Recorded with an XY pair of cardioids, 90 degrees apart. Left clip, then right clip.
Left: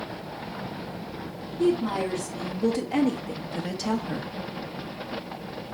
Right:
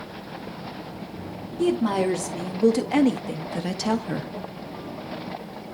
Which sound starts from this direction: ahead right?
A woman speaking, at 1.6 s.